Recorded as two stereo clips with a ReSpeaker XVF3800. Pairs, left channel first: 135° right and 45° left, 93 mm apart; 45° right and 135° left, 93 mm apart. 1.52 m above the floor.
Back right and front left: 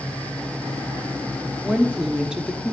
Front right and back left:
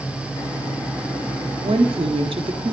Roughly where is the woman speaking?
Behind left.